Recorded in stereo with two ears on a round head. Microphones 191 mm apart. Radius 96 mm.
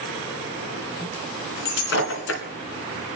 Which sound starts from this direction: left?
Breaking glass, at 1.6 s.